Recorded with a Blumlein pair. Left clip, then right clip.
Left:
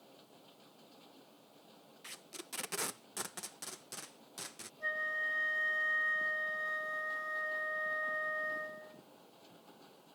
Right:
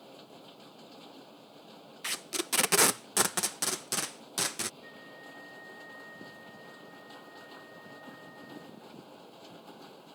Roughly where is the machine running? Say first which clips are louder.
Right 9 dB; ahead right.